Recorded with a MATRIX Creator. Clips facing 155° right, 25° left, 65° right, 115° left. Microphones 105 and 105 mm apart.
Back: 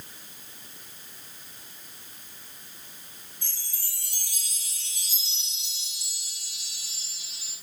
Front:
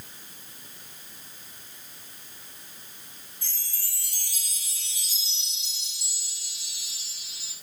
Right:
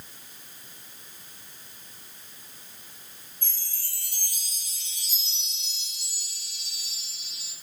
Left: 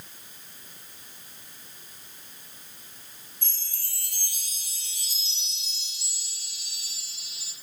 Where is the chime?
135° left, 5.5 m.